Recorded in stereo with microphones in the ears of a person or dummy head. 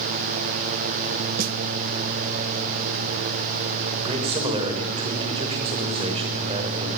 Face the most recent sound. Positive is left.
turn(degrees=-25)  # may be behind; listen again after turning